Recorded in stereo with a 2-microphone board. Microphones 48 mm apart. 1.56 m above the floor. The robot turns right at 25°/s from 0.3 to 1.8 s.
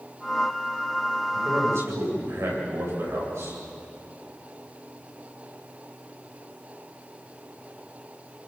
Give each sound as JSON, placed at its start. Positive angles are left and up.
{"t": 1.3, "sound": "a man speaking", "side_deg": -60, "distance_m": 8.0}